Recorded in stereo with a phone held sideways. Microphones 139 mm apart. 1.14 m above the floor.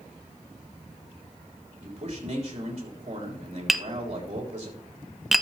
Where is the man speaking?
50° right (ahead or behind), 3.5 m.